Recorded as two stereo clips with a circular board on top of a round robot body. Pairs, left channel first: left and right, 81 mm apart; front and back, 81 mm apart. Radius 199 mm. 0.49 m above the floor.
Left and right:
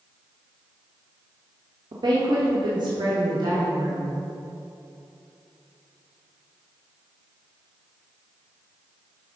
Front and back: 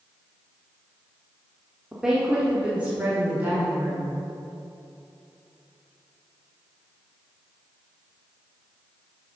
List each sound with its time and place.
1.9 s a woman speaking: 95° right, 2 m; by 4.1 s 115° right, 3.5 m